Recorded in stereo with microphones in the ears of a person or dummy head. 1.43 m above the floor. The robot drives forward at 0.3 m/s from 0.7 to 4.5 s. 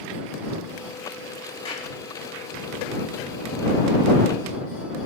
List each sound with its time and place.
1.6 s a clap: 30° left (ahead or behind), 7.5 m